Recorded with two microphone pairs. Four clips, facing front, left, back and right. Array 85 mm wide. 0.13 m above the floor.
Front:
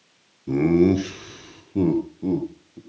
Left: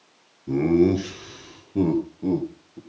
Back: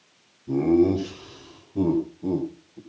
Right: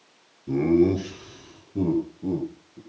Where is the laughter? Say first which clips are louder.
Left 1 dB, front 2 dB; 5° left, 2.5 m; by 2.8 s 65° left, 3.5 m.